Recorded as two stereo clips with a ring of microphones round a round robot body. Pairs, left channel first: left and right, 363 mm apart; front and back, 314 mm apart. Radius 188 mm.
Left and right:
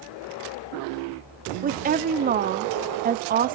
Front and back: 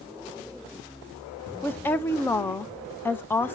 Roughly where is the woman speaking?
Right.